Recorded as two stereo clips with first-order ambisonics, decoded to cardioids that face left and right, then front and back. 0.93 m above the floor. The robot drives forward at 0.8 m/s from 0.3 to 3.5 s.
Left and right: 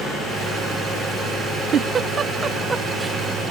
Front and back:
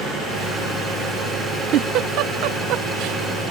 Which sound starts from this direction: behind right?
A giggle, at 1.7 s.